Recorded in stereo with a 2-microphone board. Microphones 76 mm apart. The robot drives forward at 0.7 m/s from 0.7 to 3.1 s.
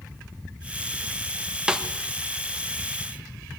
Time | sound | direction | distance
1.7 | a snare drum | 10° right (ahead or behind) | 1.5 m